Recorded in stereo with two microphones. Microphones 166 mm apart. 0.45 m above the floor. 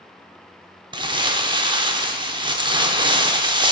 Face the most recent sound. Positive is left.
turn(degrees=-30)  # may be behind; listen again after turning